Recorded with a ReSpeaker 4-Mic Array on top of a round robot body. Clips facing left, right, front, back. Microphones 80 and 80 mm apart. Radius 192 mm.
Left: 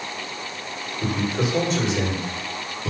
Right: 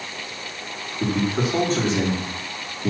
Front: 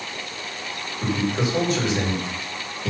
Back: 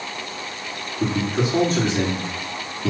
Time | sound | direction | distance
1.0 | a man speaking | 130° right | 3.5 m